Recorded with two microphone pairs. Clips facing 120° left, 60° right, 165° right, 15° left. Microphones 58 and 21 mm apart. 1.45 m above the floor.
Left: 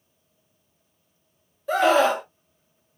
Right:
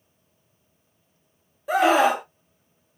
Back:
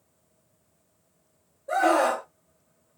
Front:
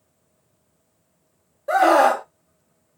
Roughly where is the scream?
Ahead left.